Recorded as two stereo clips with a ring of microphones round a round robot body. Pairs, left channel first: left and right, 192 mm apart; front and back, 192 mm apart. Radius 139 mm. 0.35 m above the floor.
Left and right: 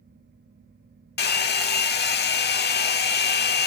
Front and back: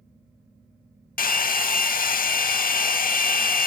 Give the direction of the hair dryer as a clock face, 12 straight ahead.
10 o'clock.